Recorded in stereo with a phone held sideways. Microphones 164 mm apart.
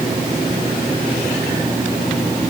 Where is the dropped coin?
I don't hear a dropped coin.